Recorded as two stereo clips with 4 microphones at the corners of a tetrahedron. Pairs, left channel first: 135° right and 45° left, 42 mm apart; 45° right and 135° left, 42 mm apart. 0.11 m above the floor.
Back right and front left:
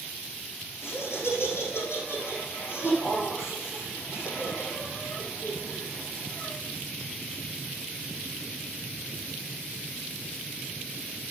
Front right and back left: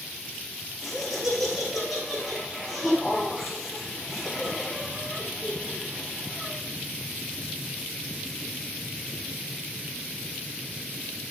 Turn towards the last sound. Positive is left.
turn(degrees=-140)